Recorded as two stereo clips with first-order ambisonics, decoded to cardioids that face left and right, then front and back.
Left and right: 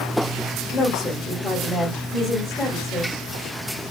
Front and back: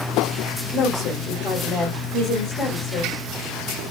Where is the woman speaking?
30° left, 1.6 m.